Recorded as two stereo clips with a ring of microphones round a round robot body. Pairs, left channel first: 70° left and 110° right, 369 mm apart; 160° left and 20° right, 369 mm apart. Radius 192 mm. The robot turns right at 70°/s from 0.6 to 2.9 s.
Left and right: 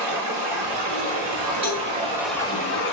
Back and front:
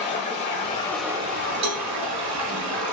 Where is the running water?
140° right, 1.1 m; by 2.9 s 20° left, 1.1 m.